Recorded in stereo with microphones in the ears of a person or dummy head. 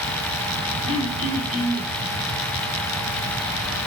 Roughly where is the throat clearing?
Right.